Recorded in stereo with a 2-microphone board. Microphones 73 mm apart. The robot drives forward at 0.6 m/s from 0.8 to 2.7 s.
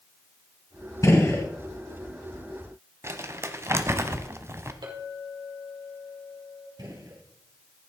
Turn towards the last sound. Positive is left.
turn(degrees=-60)  # may be behind; listen again after turning